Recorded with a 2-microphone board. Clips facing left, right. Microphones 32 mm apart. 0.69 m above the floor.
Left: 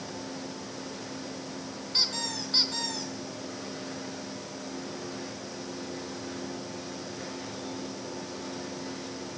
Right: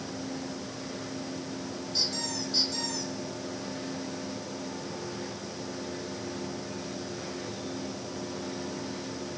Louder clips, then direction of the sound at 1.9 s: Left 3 dB; 50° left (ahead or behind).